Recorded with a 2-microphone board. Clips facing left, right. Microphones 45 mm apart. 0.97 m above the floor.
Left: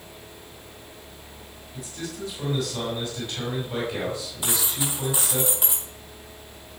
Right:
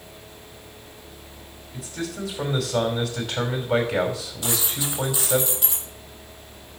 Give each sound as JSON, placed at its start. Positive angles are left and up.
{"t": 1.7, "sound": "a man speaking", "side_deg": -85, "distance_m": 5.0}
{"t": 4.4, "sound": "a dropped coin", "side_deg": 20, "distance_m": 9.0}